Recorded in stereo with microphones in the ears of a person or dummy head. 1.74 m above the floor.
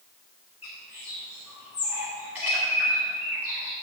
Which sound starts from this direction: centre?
A bird, at 0.6 s.